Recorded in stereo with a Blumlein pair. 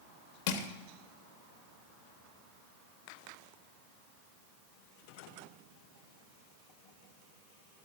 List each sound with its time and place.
0.5 s crushing: 45° left, 1.2 m